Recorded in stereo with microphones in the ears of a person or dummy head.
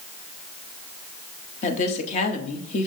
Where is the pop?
No pop in this recording.